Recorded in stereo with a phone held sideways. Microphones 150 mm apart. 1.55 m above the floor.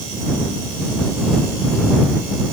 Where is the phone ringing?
No phone ringing in this recording.